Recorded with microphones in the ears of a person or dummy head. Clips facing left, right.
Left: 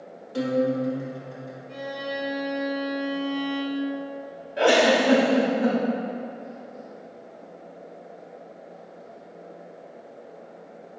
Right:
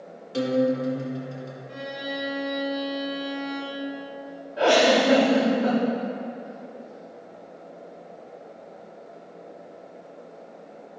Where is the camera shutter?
No camera shutter in this recording.